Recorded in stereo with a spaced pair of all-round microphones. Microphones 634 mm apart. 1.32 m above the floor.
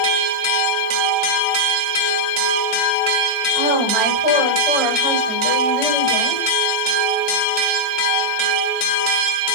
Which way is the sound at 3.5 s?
40° left (ahead or behind).